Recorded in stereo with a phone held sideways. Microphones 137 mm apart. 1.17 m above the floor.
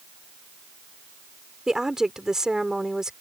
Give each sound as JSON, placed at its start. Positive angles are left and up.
{"t": 1.7, "sound": "a woman speaking", "side_deg": -5}